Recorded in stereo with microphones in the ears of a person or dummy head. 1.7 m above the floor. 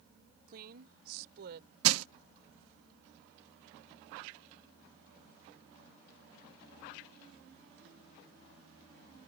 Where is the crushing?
85° right.